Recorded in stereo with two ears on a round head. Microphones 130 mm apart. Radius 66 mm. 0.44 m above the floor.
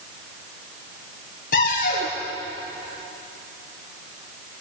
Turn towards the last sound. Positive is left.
turn(degrees=55)  # may be behind; listen again after turning